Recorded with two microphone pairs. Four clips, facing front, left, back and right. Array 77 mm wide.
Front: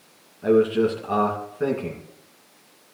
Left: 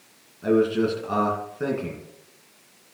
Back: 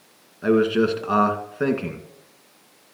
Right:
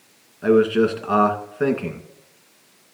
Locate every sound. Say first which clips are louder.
0.4 s a man speaking: right 4 dB, even; 140° right, 1.8 m